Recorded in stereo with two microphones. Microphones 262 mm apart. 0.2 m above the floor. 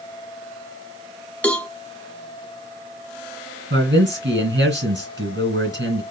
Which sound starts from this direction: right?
A man speaking, at 3.7 s.